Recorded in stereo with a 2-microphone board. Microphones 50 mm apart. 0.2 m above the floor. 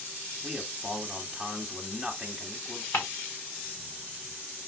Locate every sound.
0.4 s a man speaking: 5° left (ahead or behind), 1.2 m
2.9 s ticking: 70° left (ahead or behind), 3 m